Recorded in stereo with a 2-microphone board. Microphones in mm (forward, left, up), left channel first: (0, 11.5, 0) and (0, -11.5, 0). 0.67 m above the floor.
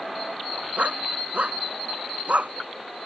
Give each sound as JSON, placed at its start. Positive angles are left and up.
{"t": 0.8, "sound": "a dog barking", "side_deg": -85}